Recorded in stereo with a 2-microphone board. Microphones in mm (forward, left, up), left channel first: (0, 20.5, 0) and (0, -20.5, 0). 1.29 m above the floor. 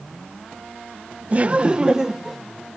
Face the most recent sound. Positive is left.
turn(degrees=0)  # may be behind; listen again after turning